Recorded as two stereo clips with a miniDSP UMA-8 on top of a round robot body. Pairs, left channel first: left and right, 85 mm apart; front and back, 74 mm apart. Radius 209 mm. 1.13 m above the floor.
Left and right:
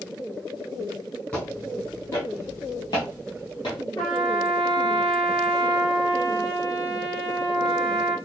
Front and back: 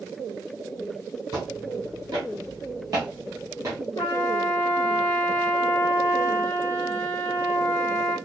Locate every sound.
1.3 s footsteps: 165° left, 1.7 m; by 3.8 s 120° left, 2 m
4.0 s a trumpet: 50° left, 1.3 m